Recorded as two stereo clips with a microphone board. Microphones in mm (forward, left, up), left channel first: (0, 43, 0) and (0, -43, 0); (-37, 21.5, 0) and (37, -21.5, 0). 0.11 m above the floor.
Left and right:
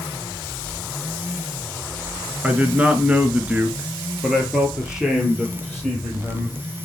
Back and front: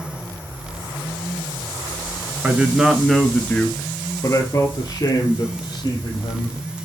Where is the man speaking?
50° right, 1.1 m; by 6.6 s straight behind, 2.5 m.